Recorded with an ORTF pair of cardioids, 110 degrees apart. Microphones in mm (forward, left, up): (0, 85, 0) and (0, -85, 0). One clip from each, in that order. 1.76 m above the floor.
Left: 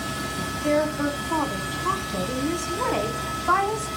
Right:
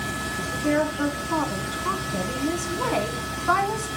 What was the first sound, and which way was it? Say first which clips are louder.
A woman speaking: left 1 dB; 5° left.